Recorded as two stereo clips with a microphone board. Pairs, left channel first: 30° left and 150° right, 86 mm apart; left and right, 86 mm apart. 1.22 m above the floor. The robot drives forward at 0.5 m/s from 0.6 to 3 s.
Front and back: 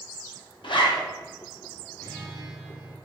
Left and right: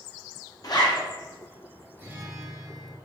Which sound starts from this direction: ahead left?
A zipper, at 0.6 s.